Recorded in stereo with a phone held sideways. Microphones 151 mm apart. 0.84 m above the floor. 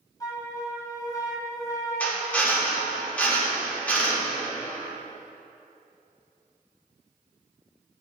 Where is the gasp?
No gasp in this recording.